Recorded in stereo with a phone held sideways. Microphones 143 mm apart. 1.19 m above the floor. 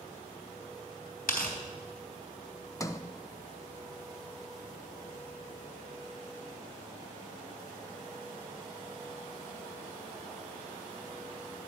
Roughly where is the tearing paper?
Left.